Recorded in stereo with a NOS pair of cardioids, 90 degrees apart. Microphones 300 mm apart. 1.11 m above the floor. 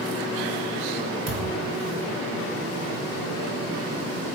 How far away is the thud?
About 1.6 m.